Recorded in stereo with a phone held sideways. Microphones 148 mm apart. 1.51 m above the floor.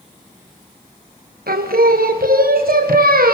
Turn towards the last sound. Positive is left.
turn(degrees=-80)